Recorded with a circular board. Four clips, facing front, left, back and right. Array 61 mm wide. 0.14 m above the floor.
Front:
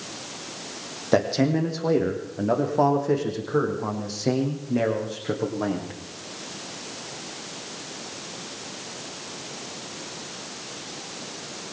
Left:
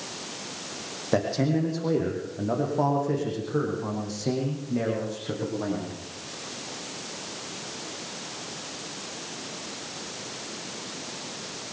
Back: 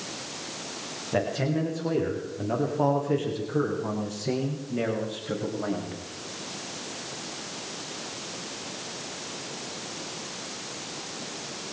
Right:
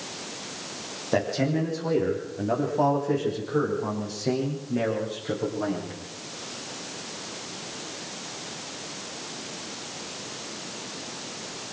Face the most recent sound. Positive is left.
turn(degrees=-5)